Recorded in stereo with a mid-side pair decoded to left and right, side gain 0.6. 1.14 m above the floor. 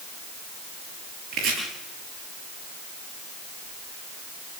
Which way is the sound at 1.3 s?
55° right.